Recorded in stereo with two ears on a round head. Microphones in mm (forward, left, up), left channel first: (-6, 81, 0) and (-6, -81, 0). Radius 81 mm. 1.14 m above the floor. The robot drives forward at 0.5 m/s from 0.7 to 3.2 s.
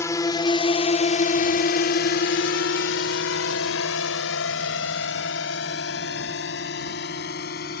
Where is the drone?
15° left (ahead or behind); by 7.8 s 60° left (ahead or behind).